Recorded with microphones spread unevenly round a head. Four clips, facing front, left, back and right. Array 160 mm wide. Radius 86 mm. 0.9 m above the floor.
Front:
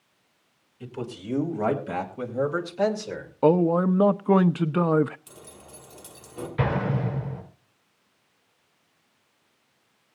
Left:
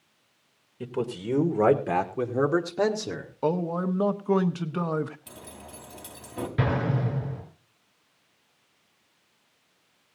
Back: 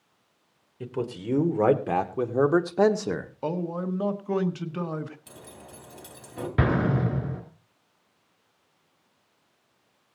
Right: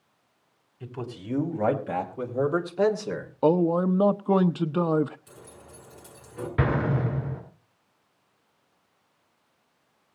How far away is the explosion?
About 5 m.